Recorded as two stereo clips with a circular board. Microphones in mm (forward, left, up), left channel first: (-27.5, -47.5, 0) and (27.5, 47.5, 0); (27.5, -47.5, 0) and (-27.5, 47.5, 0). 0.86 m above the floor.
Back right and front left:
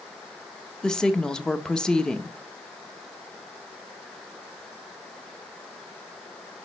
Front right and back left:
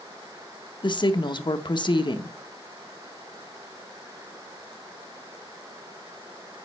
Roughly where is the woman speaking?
Ahead right.